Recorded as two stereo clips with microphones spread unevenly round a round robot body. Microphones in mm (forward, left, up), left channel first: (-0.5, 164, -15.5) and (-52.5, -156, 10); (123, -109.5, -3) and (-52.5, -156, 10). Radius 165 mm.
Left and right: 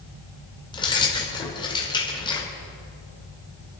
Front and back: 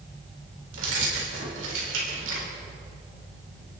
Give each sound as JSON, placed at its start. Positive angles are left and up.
{"t": 0.7, "sound": "keys jangling", "azimuth_deg": 155, "distance_m": 2.5}